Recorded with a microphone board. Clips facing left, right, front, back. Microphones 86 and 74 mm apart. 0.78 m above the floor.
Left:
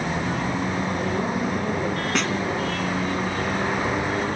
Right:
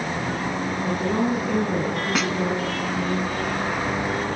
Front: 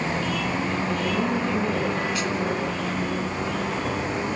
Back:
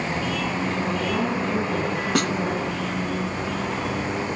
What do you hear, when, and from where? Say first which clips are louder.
0.8 s a woman speaking: right 2 dB, even; 105° right, 9 m
2.1 s a snare drum: even, back 4 dB; 175° right, 1.3 m